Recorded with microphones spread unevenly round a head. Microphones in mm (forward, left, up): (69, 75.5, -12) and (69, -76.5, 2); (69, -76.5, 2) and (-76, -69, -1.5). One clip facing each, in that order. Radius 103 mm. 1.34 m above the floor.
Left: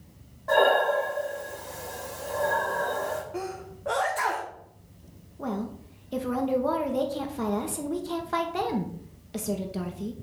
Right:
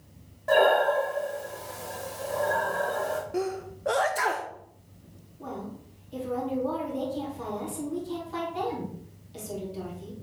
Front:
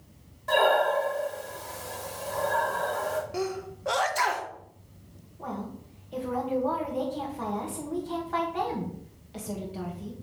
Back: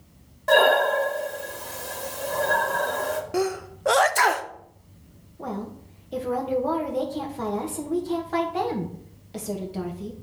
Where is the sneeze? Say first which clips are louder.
Right 4 dB, back 6 dB; 155° right, 0.5 m.